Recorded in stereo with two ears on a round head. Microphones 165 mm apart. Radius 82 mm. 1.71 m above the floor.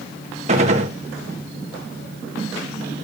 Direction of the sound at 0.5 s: 35° right (ahead or behind).